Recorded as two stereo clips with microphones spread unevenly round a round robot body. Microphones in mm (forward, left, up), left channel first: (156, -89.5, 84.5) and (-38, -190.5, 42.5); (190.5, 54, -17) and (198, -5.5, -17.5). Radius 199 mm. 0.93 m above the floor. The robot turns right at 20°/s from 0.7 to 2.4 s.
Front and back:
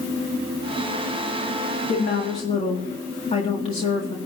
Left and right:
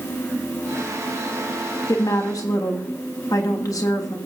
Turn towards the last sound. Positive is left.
turn(degrees=100)